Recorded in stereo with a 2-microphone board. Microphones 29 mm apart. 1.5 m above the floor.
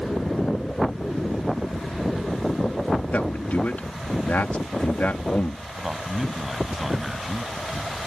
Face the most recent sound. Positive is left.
turn(degrees=-10)  # may be behind; listen again after turning